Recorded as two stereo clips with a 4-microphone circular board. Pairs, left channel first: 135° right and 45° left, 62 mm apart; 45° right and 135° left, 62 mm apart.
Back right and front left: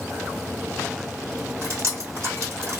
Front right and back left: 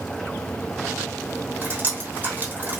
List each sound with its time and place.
1.6 s dripping: 80° left, 2 m